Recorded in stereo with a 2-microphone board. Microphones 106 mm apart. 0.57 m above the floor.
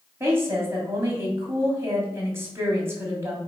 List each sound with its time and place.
0.2 s a woman speaking: 25° right (ahead or behind), 3 m